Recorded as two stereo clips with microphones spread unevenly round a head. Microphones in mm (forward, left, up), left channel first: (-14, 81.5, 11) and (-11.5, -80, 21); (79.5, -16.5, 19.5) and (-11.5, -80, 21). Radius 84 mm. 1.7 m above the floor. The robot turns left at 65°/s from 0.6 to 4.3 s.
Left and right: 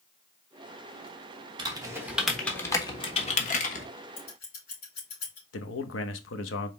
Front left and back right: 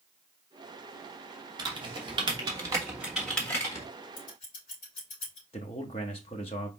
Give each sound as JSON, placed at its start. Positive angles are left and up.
{"t": 1.6, "sound": "typing on a keyboard", "azimuth_deg": -125, "distance_m": 1.1}
{"t": 4.2, "sound": "scissors", "azimuth_deg": 65, "distance_m": 3.0}
{"t": 5.5, "sound": "a man speaking", "azimuth_deg": 90, "distance_m": 0.9}